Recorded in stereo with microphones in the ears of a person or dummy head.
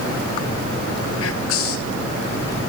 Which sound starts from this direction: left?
Whispering, at 1.2 s.